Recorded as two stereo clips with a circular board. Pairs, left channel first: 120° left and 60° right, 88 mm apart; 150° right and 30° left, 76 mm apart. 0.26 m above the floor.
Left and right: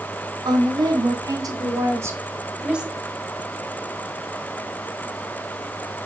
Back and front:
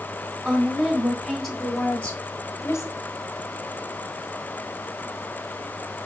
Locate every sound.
0.5 s a woman speaking: 45° right, 3 m; by 2.9 s 140° right, 1.8 m